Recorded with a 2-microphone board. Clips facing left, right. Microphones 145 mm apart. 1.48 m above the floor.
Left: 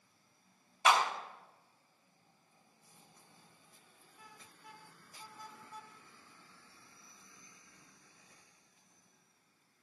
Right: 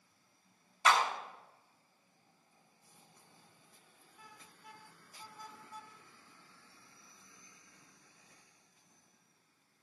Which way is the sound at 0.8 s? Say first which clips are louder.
Left 1 dB; 20° left (ahead or behind).